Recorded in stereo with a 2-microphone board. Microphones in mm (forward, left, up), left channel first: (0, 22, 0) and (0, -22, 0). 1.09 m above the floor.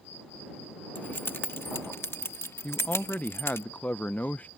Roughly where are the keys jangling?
Left.